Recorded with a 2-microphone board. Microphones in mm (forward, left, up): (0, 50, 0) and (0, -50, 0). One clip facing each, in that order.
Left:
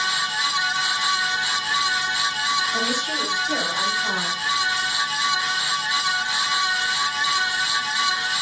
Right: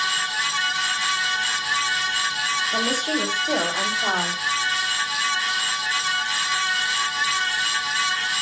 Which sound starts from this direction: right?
A woman speaking, at 2.7 s.